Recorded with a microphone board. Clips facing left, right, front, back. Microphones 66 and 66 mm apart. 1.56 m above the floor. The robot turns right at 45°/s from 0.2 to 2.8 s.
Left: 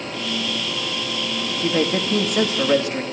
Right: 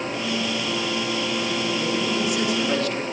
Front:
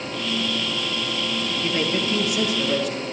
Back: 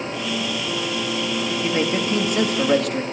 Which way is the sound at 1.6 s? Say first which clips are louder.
Left 3 dB, back 2 dB; 105° left.